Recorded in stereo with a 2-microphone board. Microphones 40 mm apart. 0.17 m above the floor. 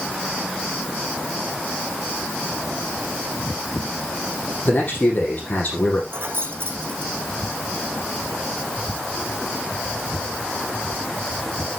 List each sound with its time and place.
4.7 s a man speaking: 45° left (ahead or behind), 7 m
6.1 s keys jangling: 75° right (ahead or behind), 5.5 m